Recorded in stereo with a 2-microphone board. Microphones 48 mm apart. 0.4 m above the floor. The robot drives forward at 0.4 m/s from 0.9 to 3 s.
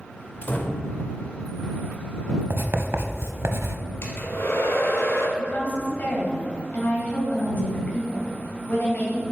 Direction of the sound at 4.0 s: 65° left (ahead or behind).